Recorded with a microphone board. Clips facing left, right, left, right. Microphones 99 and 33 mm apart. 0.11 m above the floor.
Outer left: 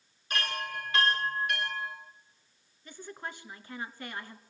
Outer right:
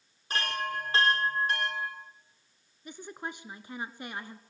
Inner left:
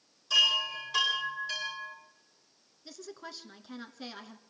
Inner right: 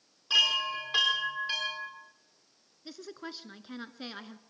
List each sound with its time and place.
0.3 s a chime: 35° right (ahead or behind), 6.5 m
2.9 s a woman speaking: 20° right (ahead or behind), 1.1 m